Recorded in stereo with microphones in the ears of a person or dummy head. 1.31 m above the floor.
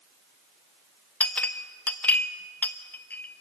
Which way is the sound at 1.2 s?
10° left (ahead or behind).